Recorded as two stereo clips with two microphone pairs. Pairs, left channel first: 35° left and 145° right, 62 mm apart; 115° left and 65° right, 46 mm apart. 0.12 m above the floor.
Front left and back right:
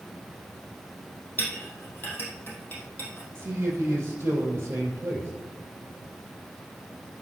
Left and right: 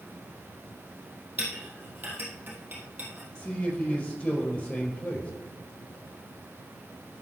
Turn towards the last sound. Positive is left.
turn(degrees=165)